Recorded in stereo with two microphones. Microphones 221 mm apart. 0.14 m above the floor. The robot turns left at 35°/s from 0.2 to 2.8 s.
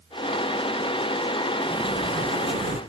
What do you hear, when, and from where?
1.6 s a sliding door: 5° right, 4 m; by 2.8 s 45° right, 4 m